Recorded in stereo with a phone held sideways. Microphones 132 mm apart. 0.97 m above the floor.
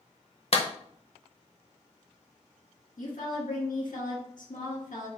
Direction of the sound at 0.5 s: 50° left (ahead or behind).